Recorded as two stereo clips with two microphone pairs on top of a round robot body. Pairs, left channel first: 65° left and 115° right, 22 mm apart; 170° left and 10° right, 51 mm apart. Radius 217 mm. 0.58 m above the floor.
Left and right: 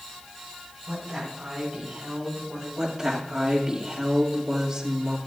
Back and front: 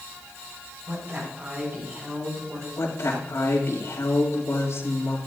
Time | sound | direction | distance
0.9 | a woman speaking | 50° right | 5.5 m
2.8 | a woman speaking | straight behind | 2.5 m